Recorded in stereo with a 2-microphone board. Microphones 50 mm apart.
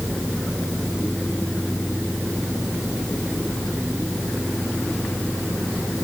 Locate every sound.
Only background noise.